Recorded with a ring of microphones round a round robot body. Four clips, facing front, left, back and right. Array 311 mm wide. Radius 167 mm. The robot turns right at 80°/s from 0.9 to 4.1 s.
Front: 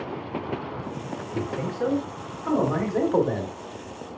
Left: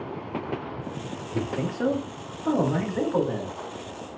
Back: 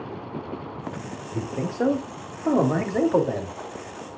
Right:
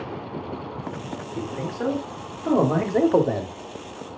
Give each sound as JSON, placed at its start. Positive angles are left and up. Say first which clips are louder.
{"t": 1.3, "sound": "a man speaking", "louder": "left 2 dB, back 2 dB", "azimuth_deg": 130, "distance_m": 2.5}